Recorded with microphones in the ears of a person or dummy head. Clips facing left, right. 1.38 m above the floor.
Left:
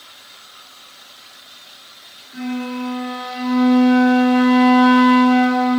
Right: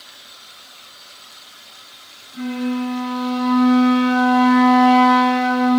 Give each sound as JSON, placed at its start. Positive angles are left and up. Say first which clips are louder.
{"t": 2.3, "sound": "a flute", "louder": "right 2 dB", "side_deg": 30, "distance_m": 3.0}